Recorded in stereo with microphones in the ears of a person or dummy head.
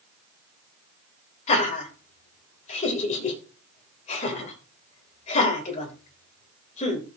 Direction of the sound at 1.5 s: 40° left (ahead or behind).